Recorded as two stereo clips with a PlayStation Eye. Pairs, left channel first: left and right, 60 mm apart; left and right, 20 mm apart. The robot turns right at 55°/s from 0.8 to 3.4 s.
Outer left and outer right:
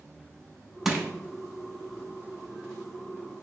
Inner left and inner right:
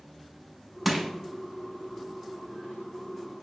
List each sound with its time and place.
0.8 s crushing: 10° right (ahead or behind), 0.6 m; by 1.1 s centre (ahead or behind), 0.6 m